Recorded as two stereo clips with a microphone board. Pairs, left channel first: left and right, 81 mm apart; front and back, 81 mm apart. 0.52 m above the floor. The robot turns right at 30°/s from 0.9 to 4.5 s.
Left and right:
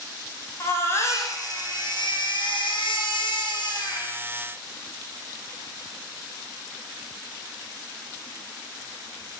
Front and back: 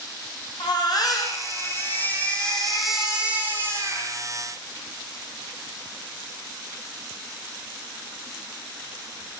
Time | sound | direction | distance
0.6 | a baby crying | 35° left | 9.5 m